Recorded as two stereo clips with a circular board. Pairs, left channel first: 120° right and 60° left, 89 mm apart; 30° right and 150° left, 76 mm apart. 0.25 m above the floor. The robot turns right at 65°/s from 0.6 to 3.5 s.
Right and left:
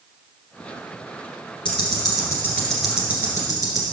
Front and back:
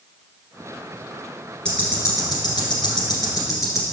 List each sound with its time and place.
1.6 s ticking: 105° right, 1.9 m; by 3.8 s 15° left, 1.9 m